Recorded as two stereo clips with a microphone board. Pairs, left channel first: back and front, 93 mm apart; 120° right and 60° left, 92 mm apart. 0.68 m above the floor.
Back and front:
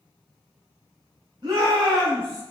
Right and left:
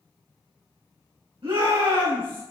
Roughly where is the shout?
Ahead left.